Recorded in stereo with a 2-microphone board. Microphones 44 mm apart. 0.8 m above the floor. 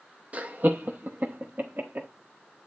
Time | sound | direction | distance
0.3 | laughter | 35° right (ahead or behind) | 0.7 m